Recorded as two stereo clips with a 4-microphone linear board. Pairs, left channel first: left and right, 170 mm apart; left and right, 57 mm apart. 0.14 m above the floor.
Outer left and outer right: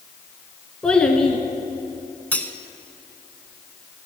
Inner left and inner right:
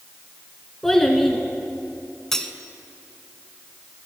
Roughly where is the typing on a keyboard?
No typing on a keyboard in this recording.